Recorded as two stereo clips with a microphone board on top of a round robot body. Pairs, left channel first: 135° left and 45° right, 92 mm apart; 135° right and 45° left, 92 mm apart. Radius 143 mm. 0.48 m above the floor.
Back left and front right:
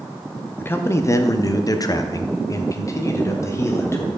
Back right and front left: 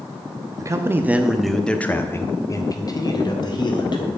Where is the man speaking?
80° left, 0.8 m; by 4.1 s 165° right, 1.7 m.